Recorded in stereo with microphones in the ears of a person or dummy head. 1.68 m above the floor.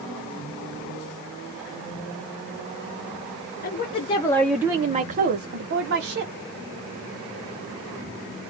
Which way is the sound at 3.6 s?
45° left (ahead or behind).